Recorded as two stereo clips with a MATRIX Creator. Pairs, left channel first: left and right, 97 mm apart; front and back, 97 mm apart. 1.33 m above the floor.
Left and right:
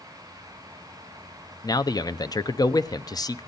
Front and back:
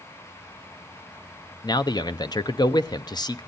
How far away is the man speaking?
About 0.6 m.